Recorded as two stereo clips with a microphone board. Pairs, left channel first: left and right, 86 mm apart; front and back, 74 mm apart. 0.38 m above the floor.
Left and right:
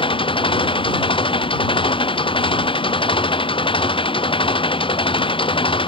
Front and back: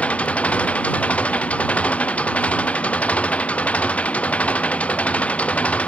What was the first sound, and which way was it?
An engine running, 75° left.